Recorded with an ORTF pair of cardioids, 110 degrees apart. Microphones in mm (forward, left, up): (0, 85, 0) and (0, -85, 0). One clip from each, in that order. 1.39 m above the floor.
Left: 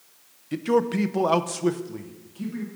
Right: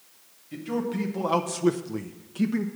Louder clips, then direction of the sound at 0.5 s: Left 8 dB; 55° left.